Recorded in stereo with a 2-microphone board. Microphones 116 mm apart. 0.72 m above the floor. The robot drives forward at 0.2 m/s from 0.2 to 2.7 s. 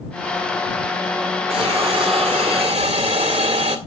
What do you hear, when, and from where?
1.5 s a hiss: 65° right (ahead or behind), 1.9 m; by 3.8 s 70° right (ahead or behind), 1.8 m